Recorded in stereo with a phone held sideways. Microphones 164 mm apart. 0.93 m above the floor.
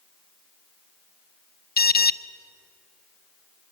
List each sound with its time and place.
1.8 s an alarm: 75° left (ahead or behind), 0.6 m